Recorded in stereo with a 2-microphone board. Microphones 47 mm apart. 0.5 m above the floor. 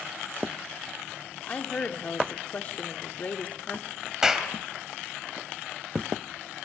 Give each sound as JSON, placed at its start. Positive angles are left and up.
{"t": 1.5, "sound": "a woman speaking", "side_deg": 30, "distance_m": 1.2}
{"t": 4.2, "sound": "a clap", "side_deg": -10, "distance_m": 2.5}